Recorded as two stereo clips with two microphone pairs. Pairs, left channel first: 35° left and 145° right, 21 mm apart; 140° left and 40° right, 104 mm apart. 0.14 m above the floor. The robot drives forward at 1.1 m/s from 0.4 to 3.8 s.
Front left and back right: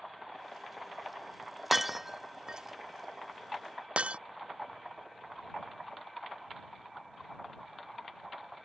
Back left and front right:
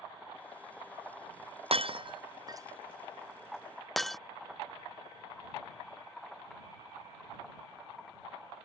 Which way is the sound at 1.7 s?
65° right.